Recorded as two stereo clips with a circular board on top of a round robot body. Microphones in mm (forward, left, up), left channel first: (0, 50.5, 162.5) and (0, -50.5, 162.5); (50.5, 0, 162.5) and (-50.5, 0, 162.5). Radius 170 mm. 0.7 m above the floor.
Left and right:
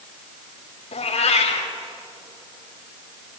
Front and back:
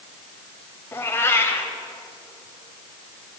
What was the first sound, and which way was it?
A cat meowing, 70° left.